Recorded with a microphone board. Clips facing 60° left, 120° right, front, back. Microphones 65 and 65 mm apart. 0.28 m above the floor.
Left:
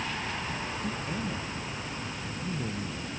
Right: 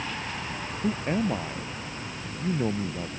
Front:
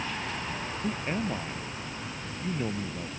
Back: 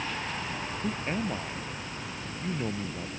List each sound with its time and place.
0.8 s a man speaking: 90° right